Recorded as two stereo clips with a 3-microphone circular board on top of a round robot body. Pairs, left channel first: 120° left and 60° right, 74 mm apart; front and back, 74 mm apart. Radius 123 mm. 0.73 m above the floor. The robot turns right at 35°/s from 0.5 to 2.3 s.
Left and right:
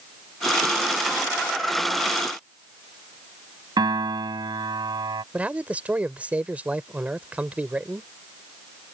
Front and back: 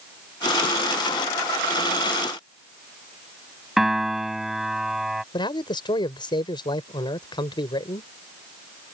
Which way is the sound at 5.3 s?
10° left.